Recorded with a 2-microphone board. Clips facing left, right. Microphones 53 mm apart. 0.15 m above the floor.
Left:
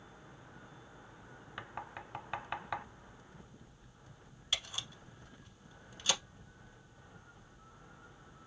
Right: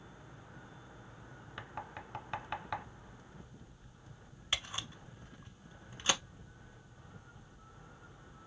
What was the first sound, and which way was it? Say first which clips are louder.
Knocking: even; 5° left (ahead or behind).